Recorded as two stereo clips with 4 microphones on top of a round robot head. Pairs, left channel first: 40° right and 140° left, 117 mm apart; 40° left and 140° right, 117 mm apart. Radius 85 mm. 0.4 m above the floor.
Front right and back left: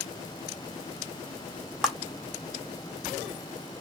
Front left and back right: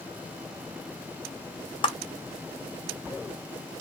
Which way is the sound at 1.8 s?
50° left.